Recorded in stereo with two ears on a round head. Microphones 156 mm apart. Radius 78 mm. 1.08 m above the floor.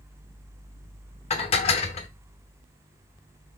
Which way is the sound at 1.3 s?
35° left (ahead or behind).